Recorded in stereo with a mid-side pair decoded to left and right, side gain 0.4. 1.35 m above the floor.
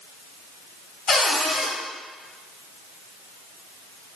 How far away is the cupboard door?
About 0.8 m.